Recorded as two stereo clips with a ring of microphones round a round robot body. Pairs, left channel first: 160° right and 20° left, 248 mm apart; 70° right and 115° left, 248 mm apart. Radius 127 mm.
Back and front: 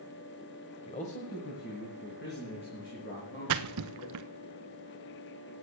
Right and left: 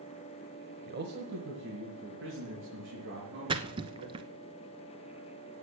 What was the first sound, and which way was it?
A man speaking, 145° left.